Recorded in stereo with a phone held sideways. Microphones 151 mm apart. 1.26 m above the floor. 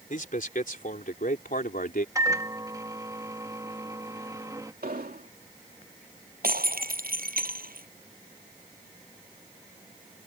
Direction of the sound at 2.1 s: 25° right (ahead or behind).